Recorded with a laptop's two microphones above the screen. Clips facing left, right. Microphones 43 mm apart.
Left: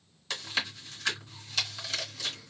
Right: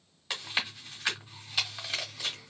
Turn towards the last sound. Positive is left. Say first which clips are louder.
# even
turn(degrees=-20)  # may be behind; listen again after turning